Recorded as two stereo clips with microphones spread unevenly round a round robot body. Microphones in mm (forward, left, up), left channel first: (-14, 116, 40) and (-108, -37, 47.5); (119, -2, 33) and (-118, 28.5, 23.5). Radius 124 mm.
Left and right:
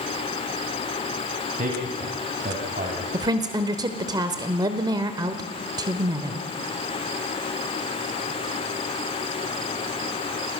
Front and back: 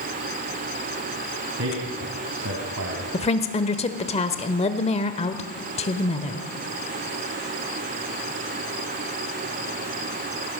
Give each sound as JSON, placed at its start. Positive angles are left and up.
{"t": 1.6, "sound": "a man speaking", "azimuth_deg": -160, "distance_m": 3.5}
{"t": 3.1, "sound": "a woman speaking", "azimuth_deg": -60, "distance_m": 1.1}